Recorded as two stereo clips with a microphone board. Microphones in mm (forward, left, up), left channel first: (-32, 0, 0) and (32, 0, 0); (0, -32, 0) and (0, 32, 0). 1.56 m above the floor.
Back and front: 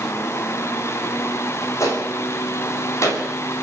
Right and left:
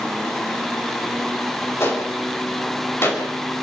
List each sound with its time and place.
1.8 s a gunshot: 140° right, 5.5 m